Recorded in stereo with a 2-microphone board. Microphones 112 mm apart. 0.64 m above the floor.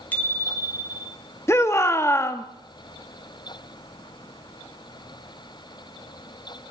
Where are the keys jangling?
No keys jangling in this recording.